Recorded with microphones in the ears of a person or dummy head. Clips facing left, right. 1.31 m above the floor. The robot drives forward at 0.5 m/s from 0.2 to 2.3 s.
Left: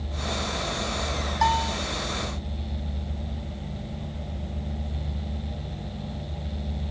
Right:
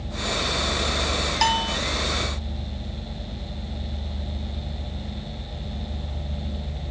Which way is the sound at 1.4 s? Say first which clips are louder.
Left 2 dB; 50° right (ahead or behind).